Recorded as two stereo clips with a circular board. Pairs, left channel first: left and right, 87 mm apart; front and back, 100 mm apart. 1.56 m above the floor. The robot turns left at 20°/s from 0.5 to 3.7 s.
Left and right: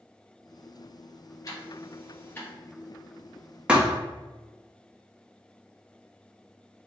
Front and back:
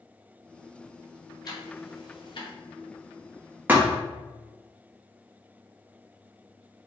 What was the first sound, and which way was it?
Ticking, 45° left.